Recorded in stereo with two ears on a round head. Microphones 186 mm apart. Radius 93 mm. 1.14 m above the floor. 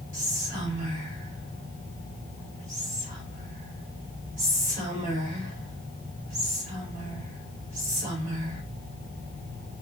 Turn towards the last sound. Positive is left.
turn(degrees=-40)  # may be behind; listen again after turning